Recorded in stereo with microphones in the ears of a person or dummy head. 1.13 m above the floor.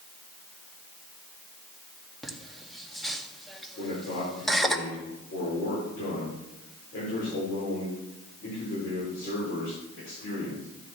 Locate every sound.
2.2 s laughter: centre (ahead or behind), 1.9 m
3.8 s a man speaking: 55° left (ahead or behind), 4 m